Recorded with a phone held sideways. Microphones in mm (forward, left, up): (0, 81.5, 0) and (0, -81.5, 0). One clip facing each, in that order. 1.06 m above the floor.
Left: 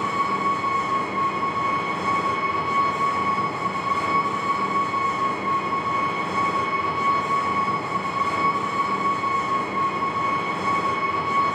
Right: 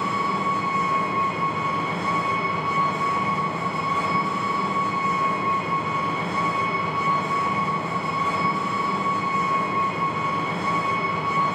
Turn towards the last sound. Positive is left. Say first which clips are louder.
# even
turn(degrees=-55)  # may be behind; listen again after turning